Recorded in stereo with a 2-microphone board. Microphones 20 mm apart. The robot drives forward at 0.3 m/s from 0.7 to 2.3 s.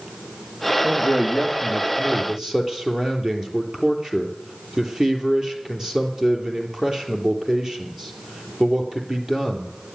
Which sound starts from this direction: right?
A man speaking, at 0.8 s.